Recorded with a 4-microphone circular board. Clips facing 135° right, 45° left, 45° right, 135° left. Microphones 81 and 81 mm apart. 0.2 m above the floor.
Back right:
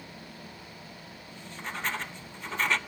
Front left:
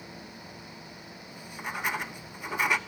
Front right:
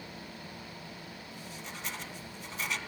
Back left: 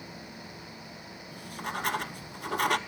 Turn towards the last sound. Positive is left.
turn(degrees=120)